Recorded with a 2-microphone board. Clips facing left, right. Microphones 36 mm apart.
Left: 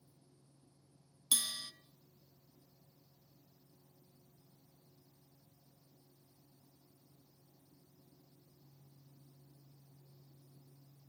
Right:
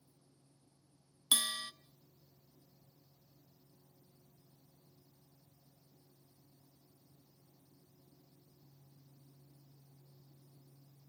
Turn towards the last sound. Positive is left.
turn(degrees=-35)  # may be behind; listen again after turning